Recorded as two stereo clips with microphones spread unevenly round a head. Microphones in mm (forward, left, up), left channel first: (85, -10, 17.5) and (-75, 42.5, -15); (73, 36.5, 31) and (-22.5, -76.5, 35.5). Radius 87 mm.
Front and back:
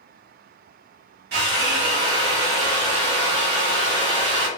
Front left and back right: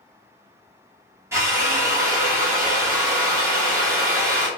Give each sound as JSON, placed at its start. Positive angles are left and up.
{"t": 1.3, "sound": "a drill", "azimuth_deg": 155, "distance_m": 1.8}